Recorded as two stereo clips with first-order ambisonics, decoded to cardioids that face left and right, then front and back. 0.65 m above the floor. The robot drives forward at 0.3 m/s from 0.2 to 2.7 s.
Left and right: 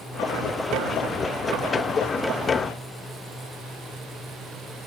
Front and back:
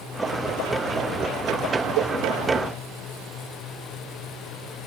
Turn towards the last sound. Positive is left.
turn(degrees=165)